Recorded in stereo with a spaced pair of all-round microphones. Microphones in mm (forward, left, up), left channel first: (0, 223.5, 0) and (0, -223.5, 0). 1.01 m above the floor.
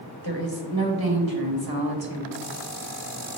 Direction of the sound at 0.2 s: 50° right (ahead or behind).